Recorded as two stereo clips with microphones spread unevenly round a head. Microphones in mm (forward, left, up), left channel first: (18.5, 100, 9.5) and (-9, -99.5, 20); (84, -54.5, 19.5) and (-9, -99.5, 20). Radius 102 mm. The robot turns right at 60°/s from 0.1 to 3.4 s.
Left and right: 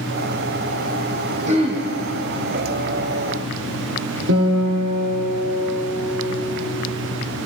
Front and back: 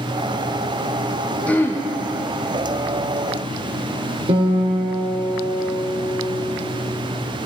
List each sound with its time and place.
1.5 s throat clearing: 50° right, 0.9 m; by 1.8 s 25° right, 0.9 m
4.3 s a guitar: 125° right, 1.5 m